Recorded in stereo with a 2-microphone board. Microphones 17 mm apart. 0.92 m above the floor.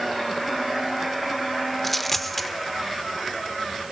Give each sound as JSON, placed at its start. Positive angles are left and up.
{"t": 1.8, "sound": "a dropped coin", "side_deg": 10, "distance_m": 1.1}